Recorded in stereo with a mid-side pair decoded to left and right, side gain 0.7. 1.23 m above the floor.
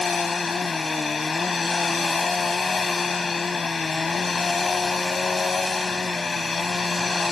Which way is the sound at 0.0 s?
20° left.